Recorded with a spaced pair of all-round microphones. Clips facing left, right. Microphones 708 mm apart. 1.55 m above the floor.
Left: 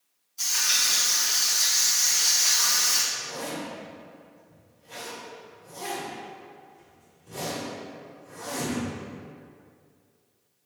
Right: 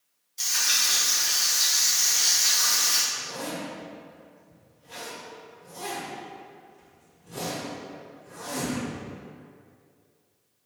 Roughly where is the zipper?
Right.